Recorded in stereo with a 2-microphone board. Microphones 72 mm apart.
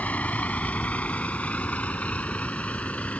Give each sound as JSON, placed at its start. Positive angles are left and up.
{"t": 0.0, "sound": "a vehicle", "side_deg": 20}